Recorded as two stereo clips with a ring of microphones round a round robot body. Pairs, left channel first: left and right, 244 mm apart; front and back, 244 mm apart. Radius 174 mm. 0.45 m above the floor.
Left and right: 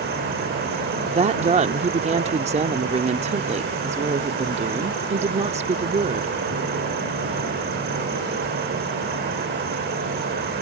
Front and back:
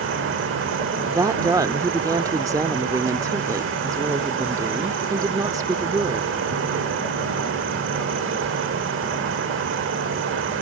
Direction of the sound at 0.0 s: 140° right.